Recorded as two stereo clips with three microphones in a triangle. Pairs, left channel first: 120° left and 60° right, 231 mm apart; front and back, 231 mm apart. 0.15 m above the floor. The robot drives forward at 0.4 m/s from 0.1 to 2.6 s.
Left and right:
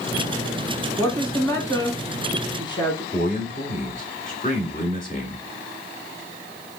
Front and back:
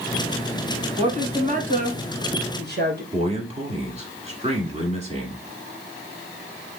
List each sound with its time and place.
1.0 s a woman speaking: 175° right, 1.4 m
3.1 s a man speaking: 140° left, 1.5 m